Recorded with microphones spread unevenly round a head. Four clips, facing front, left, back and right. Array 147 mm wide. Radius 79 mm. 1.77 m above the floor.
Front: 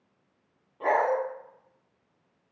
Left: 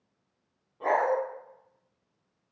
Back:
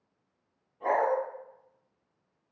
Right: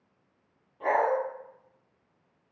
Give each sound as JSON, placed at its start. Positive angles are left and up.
{"t": 0.8, "sound": "a dog barking", "azimuth_deg": 15, "distance_m": 1.8}